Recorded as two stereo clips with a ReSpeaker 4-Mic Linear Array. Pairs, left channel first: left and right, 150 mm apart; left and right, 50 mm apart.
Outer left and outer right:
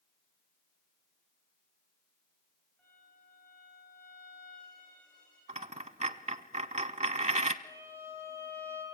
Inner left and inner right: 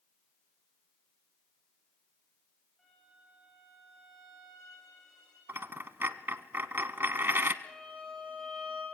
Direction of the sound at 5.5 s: 50° right (ahead or behind).